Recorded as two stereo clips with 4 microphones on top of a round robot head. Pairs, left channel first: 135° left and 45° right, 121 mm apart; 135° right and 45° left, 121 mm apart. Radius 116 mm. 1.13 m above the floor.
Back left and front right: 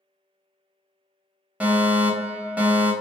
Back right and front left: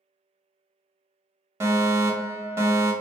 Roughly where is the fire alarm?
Ahead.